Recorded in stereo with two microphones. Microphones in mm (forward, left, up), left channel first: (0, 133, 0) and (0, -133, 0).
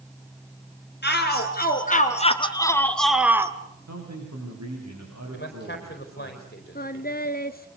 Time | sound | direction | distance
1.0 | a shout | 40° left (ahead or behind) | 2 m
3.9 | a man speaking | 75° right (ahead or behind) | 7.5 m
5.3 | a man speaking | 40° left (ahead or behind) | 4.5 m
6.8 | singing | 35° left (ahead or behind) | 0.9 m